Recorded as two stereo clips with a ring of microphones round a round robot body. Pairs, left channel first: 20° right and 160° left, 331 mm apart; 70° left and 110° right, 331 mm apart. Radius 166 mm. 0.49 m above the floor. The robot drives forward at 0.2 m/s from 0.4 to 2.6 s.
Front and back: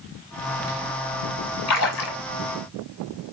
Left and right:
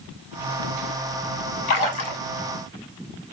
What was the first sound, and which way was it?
A splash, 20° left.